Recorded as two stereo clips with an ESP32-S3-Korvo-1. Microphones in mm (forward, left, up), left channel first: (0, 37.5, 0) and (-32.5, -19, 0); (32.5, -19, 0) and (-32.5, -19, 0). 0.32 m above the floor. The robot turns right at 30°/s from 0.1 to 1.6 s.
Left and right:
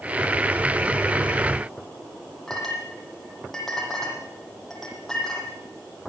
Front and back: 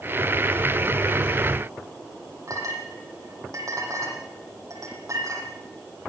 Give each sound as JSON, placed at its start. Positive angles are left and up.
{"t": 2.5, "sound": "a clink", "azimuth_deg": 145, "distance_m": 8.0}